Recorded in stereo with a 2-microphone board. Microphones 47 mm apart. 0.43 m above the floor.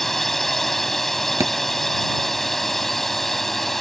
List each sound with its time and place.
0.0 s a drone: 5° left (ahead or behind)
1.4 s a thud: 85° right